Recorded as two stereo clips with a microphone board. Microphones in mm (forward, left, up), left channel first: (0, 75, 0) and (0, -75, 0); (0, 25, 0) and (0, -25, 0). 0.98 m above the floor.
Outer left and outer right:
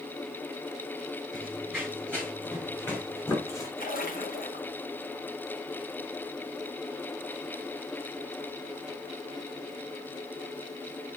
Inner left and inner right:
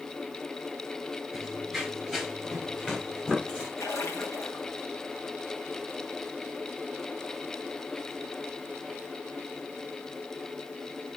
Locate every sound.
1.3 s running footsteps: 5° left (ahead or behind), 5 m; by 3.7 s 20° left (ahead or behind), 4 m
3.8 s a splash: 70° left (ahead or behind), 2 m